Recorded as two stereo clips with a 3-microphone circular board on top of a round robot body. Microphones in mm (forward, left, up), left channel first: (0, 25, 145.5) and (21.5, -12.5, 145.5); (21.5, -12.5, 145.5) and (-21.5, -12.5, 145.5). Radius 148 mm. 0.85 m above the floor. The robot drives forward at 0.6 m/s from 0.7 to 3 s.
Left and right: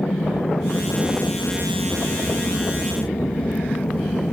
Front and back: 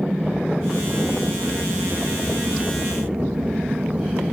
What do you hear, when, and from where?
0.0 s an aircraft: 120° left; by 4.3 s 130° left